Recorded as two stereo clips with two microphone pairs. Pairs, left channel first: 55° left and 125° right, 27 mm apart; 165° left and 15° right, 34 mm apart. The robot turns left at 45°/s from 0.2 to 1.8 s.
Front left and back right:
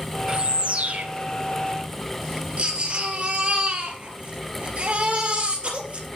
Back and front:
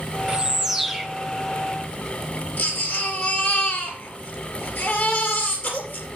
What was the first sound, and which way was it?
A bird, 80° right.